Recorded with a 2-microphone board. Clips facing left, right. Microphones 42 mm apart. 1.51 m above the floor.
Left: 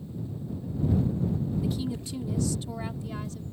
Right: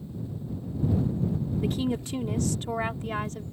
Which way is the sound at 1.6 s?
55° right (ahead or behind).